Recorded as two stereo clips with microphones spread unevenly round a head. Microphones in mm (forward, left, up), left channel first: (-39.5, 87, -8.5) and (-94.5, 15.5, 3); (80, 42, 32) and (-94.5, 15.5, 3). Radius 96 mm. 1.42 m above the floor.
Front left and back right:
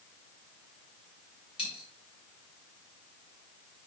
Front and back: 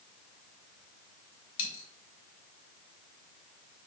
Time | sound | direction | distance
1.6 | a dropped coin | 5° right | 3 m